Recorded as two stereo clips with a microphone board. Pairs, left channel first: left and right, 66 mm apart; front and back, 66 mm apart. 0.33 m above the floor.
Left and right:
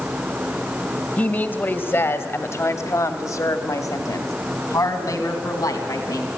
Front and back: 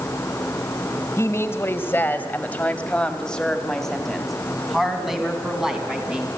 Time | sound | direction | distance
1.2 | a woman speaking | 30° left | 2 m